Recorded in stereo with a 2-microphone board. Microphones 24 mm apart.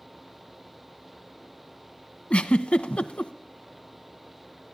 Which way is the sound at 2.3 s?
55° left (ahead or behind).